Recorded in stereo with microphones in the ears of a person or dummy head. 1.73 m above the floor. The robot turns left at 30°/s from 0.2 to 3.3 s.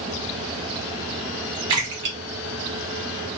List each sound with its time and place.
1.7 s a splash: 25° right (ahead or behind), 1.3 m; by 3.4 s 55° right (ahead or behind), 1.3 m